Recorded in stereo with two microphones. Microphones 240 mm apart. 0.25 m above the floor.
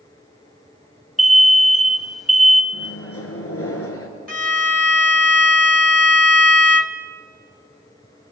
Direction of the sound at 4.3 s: 75° left (ahead or behind).